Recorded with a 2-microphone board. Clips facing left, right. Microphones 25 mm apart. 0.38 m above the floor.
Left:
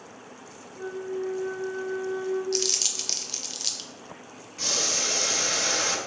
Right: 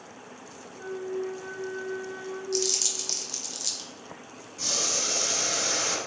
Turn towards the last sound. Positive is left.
turn(degrees=30)  # may be behind; listen again after turning